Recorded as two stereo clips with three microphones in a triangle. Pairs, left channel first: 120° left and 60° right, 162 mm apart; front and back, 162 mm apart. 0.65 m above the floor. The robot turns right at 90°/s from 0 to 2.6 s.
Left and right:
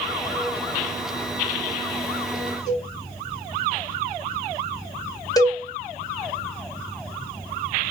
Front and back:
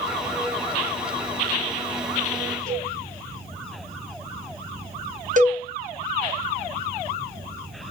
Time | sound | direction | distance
2.7 | a cowbell | straight behind | 1.9 m
5.4 | a cowbell | 175° right | 0.7 m